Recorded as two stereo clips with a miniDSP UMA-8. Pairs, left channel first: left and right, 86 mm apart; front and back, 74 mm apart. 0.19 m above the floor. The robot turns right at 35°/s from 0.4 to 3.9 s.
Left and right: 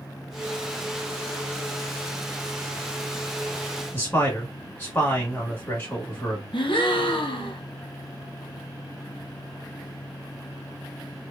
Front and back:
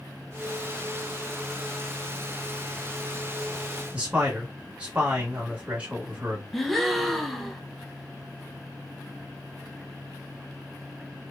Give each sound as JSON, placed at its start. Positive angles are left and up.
{"t": 3.9, "sound": "a man speaking", "azimuth_deg": 125, "distance_m": 1.1}
{"t": 6.5, "sound": "a gasp", "azimuth_deg": 90, "distance_m": 0.6}